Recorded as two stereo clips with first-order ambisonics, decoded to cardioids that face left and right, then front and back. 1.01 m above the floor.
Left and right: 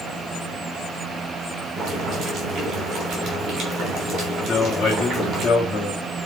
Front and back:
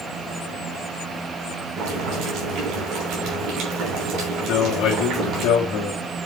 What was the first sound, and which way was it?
Boiling, 145° right.